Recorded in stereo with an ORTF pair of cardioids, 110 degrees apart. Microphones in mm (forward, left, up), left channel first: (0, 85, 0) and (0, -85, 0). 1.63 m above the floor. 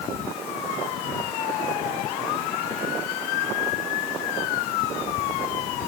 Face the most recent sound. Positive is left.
No sound to turn to.